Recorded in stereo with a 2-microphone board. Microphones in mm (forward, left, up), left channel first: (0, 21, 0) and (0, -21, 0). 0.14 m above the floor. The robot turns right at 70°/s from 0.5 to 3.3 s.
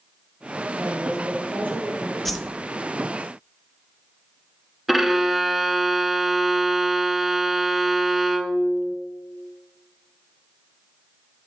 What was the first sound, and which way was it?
A woman speaking, 120° right.